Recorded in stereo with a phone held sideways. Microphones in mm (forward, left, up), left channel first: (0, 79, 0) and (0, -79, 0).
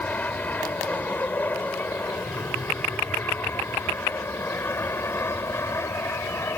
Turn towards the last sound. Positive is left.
turn(degrees=15)  # may be behind; listen again after turning